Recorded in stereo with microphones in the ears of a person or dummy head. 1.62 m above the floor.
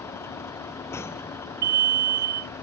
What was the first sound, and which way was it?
A vehicle, 25° left (ahead or behind).